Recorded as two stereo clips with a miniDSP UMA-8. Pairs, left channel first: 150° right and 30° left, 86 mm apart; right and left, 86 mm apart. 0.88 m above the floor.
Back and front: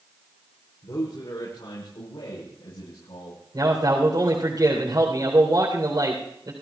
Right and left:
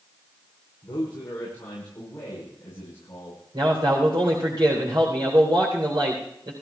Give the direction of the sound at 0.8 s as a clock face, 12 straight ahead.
5 o'clock.